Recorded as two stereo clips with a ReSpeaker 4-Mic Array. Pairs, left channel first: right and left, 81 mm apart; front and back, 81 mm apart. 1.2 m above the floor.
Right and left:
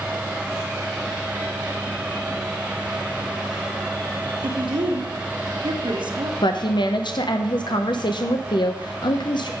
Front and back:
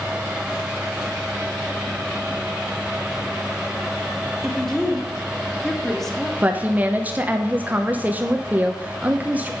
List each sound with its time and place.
4.4 s a woman speaking: 85° left, 1.3 m
6.4 s a woman speaking: 110° right, 0.6 m